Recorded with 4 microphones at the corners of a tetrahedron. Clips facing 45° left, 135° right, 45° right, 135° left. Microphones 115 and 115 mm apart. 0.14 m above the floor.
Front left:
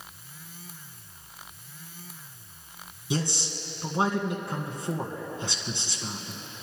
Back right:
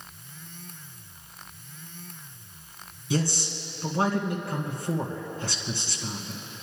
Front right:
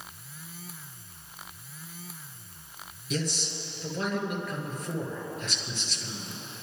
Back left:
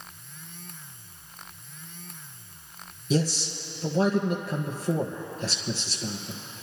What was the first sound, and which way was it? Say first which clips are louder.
A man speaking: back right 2 dB, back left 6 dB; 105° left.